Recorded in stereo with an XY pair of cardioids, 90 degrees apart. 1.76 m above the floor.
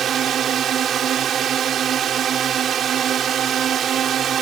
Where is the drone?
65° right.